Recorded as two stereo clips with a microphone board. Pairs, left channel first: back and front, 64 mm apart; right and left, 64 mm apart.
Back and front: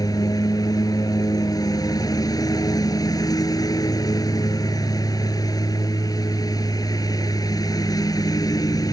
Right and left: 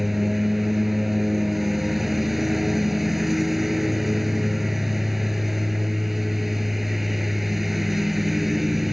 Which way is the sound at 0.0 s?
Straight behind.